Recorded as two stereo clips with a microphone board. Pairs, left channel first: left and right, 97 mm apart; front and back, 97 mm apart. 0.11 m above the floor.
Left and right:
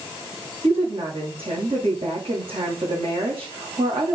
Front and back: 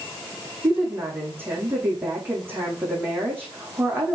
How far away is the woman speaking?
About 6 m.